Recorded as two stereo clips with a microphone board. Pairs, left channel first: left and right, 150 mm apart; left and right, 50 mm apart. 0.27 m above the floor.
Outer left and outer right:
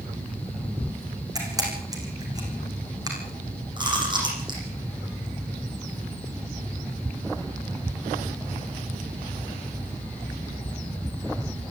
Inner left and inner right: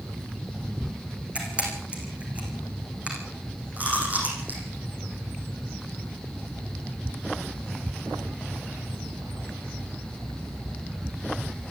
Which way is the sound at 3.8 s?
30° right (ahead or behind).